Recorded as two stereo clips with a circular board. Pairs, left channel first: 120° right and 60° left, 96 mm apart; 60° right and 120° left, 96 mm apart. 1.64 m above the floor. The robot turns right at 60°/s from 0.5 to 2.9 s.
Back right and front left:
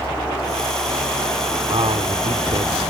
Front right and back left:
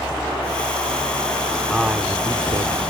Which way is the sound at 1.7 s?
30° left.